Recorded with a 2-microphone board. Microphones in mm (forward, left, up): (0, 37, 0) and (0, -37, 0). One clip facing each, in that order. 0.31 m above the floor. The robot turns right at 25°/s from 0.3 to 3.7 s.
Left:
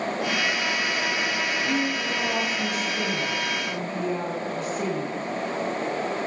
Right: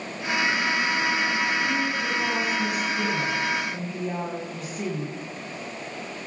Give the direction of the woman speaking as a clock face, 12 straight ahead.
8 o'clock.